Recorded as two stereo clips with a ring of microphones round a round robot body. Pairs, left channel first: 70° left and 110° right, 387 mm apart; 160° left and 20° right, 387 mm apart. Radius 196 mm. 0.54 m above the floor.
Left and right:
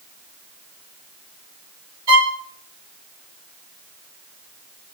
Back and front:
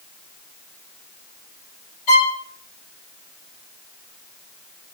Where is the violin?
165° right, 2 m.